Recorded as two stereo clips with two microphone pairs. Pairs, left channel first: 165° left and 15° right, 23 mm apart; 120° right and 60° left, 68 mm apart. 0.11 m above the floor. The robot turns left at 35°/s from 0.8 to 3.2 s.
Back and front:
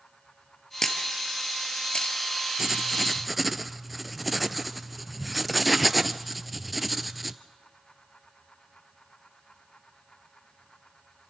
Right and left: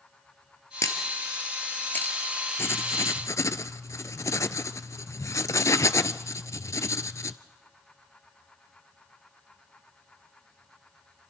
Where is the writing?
85° right, 0.6 m; by 7.4 s 105° right, 0.6 m.